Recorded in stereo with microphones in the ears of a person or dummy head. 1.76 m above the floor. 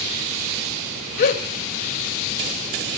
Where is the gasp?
40° left (ahead or behind), 1.4 m.